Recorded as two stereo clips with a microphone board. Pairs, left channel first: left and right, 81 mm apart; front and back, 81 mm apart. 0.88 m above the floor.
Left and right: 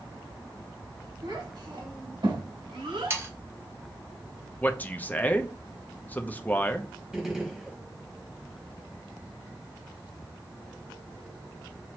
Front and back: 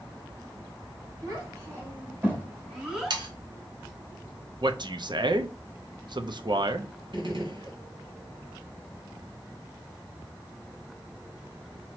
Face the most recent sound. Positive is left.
turn(degrees=-170)